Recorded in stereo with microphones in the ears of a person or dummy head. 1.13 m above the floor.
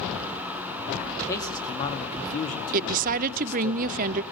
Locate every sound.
1.3 s a man speaking: 15° left (ahead or behind), 2.5 m; by 3.7 s 70° left (ahead or behind), 2 m
2.7 s a woman speaking: 50° right (ahead or behind), 0.7 m